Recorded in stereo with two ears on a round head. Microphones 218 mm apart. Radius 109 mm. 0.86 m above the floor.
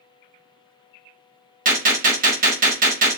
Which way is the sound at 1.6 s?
35° right (ahead or behind).